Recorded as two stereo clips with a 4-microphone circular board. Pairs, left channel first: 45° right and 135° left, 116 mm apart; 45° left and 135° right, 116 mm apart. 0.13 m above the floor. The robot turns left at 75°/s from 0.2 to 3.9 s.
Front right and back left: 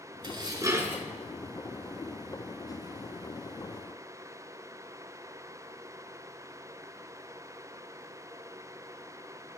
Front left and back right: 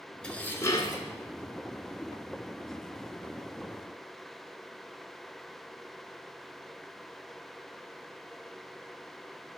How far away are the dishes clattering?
About 0.9 m.